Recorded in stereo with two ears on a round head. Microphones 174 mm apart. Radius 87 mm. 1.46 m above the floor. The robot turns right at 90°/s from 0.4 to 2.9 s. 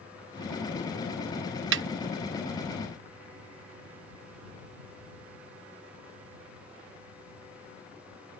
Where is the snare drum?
65° right (ahead or behind); by 1.8 s 60° right (ahead or behind).